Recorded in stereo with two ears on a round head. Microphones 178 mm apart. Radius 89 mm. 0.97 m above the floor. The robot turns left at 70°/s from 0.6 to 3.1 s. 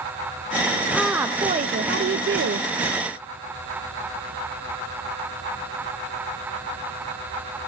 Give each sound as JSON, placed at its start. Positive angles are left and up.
{"t": 0.9, "sound": "a woman speaking", "azimuth_deg": 5, "distance_m": 0.6}